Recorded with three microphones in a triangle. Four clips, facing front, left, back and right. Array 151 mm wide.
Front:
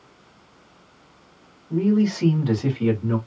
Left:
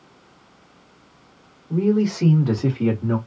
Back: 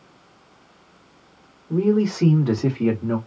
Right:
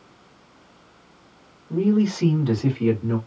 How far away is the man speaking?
About 1.5 m.